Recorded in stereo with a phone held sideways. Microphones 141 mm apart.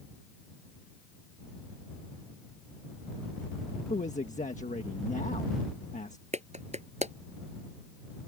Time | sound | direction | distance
3.9 | a man speaking | 60° left (ahead or behind) | ?
6.3 | a clap | 55° right (ahead or behind) | ?